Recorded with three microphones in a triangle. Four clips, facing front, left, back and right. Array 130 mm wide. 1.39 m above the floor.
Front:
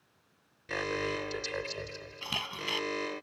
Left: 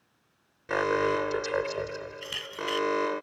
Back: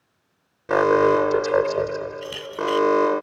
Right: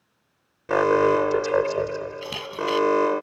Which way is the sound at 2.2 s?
60° right.